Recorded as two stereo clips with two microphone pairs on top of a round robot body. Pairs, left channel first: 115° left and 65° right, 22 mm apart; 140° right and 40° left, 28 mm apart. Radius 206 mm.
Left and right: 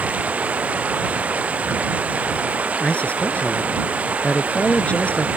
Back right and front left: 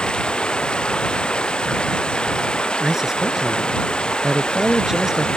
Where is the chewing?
No chewing in this recording.